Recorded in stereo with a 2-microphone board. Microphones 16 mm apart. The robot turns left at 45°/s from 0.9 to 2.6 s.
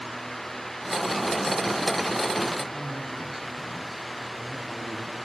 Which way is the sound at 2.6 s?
30° left (ahead or behind).